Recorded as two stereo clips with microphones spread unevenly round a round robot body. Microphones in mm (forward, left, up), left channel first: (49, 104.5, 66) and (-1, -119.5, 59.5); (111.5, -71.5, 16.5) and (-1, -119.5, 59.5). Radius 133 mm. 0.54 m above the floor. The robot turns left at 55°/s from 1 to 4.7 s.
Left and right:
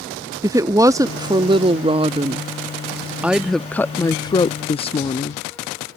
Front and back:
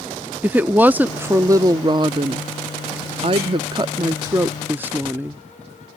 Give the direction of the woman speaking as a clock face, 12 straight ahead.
2 o'clock.